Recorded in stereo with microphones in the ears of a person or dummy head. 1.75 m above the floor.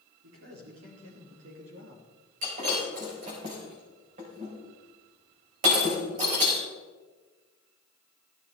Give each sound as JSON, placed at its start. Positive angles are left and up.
{"t": 0.2, "sound": "a man speaking", "side_deg": -85, "distance_m": 5.5}
{"t": 2.4, "sound": "breaking glass", "side_deg": -40, "distance_m": 4.5}